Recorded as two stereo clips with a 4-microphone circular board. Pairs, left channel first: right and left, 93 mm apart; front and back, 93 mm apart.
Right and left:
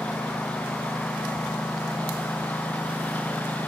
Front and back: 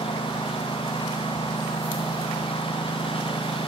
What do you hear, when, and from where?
0.0 s a lawn mower: 15° right